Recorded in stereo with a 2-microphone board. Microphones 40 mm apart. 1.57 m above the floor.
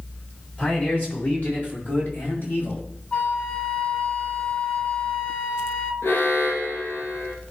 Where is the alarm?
70° left (ahead or behind), 2 m.